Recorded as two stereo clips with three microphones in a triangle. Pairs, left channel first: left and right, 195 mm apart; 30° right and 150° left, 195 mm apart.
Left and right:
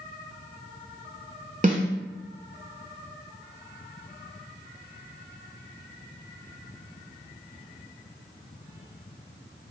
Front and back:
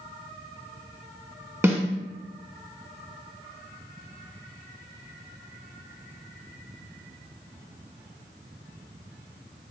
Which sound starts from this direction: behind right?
A snare drum, at 1.6 s.